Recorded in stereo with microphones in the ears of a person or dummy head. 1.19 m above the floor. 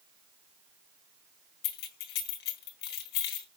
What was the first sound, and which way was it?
Keys jangling, 55° left (ahead or behind).